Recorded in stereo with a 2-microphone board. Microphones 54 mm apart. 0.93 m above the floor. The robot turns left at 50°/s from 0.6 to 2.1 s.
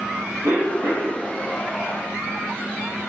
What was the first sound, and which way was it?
A cough, 50° right (ahead or behind).